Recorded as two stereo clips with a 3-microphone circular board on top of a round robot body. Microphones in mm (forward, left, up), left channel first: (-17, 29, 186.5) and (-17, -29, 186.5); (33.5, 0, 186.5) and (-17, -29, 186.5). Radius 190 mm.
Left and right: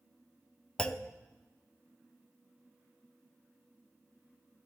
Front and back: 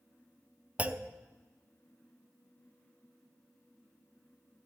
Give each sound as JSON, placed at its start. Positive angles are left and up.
{"t": 0.8, "sound": "a clunk", "azimuth_deg": 155, "distance_m": 0.9}